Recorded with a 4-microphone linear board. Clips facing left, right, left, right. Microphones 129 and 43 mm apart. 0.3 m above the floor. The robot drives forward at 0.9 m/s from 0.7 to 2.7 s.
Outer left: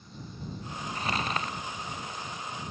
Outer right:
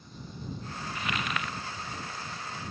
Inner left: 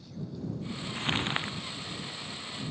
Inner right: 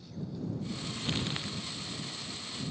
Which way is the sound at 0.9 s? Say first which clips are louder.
Outer left 2 dB, inner left 6 dB; 35° left (ahead or behind).